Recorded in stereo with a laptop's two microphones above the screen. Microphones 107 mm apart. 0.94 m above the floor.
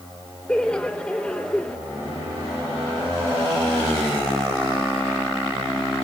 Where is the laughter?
10° left (ahead or behind), 0.9 m.